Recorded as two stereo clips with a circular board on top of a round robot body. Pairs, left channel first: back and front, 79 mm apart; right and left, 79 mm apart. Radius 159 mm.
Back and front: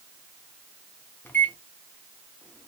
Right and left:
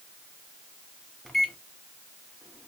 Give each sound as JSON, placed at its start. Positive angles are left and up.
{"t": 1.2, "sound": "a microwave", "azimuth_deg": -170, "distance_m": 0.9}